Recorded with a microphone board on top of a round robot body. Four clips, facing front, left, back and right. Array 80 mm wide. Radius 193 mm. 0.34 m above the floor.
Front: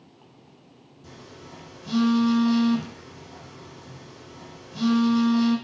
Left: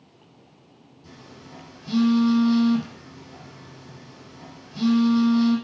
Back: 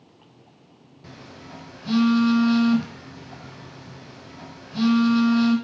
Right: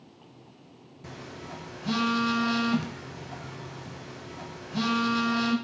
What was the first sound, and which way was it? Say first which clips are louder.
A phone buzzing: right 4 dB, back 2 dB; 120° right.